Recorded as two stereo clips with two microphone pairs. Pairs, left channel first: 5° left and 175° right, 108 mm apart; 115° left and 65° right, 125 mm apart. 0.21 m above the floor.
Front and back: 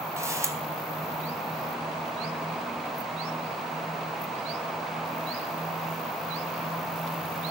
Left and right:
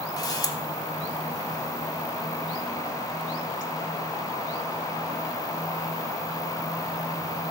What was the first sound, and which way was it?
A camera shutter, 145° left.